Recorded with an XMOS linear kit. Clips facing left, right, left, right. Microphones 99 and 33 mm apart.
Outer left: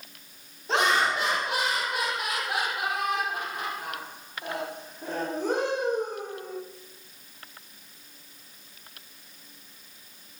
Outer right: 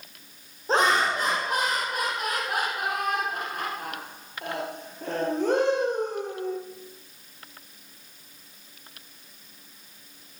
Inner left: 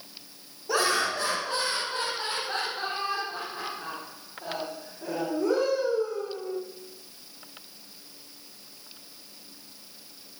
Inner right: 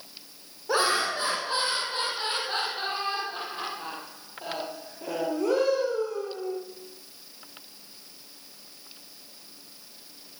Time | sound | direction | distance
0.7 | laughter | 35° right (ahead or behind) | 4.5 m